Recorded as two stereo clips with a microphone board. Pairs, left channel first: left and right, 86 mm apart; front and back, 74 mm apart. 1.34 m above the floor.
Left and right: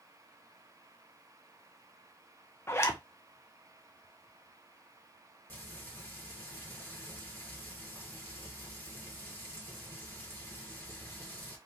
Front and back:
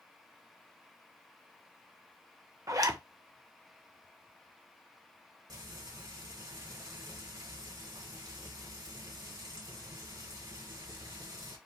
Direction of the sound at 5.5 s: 155° left.